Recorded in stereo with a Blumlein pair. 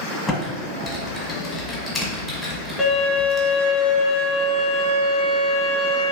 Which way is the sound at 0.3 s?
15° left.